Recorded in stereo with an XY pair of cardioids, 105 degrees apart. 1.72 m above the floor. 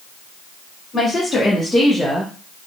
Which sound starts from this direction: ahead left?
A woman speaking, at 0.9 s.